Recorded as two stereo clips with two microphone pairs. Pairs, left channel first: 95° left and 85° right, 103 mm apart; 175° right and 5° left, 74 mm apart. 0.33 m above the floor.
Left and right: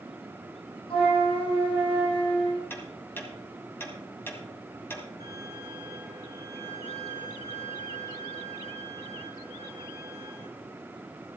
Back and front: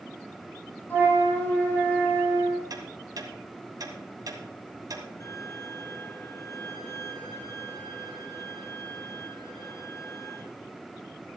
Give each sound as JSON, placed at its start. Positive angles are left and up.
{"t": 0.9, "sound": "a flute", "azimuth_deg": 120, "distance_m": 3.5}
{"t": 2.7, "sound": "ticking", "azimuth_deg": 30, "distance_m": 2.0}
{"t": 5.2, "sound": "a violin", "azimuth_deg": -135, "distance_m": 6.5}